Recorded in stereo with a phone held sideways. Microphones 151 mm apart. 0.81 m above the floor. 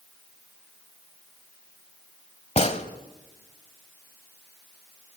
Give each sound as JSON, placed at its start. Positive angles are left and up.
{"t": 2.6, "sound": "a gunshot", "side_deg": 45, "distance_m": 1.4}